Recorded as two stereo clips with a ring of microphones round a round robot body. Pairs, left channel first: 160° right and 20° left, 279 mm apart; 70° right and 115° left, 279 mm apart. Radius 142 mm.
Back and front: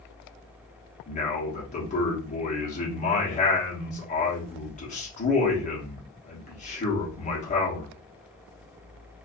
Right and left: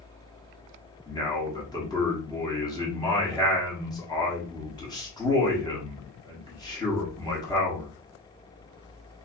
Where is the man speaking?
130° right, 1.1 m.